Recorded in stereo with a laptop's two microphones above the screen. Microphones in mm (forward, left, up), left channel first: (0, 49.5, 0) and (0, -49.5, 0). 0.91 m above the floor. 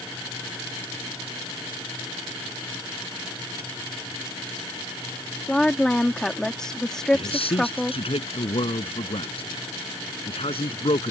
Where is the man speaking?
75° left (ahead or behind).